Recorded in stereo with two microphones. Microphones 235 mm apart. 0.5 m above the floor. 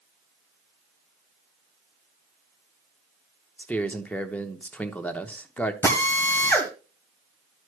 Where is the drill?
10° left (ahead or behind), 1.5 m.